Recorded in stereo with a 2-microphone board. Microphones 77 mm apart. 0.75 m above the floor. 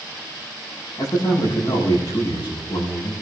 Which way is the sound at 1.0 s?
65° left (ahead or behind).